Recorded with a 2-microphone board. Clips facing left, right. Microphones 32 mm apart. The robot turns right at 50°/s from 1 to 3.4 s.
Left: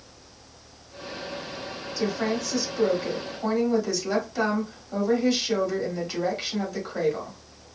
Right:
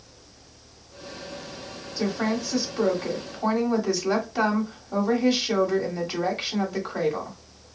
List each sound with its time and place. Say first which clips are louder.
2.0 s a woman speaking: right 1 dB; 20° right (ahead or behind), 1.3 m